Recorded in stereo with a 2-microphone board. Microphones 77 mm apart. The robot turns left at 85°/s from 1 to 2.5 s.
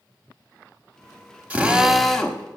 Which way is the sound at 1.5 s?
15° right (ahead or behind).